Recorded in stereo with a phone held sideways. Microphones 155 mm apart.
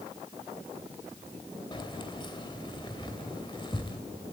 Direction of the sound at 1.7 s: 30° left (ahead or behind).